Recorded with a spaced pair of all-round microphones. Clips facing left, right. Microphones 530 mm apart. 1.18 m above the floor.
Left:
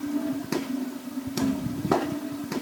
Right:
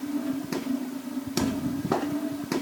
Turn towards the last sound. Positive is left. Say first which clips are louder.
# left 3 dB
turn(degrees=-65)  # may be behind; listen again after turning